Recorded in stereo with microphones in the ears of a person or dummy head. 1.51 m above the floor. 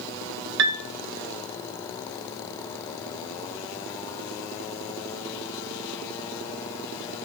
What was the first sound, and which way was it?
A piano, 65° right (ahead or behind).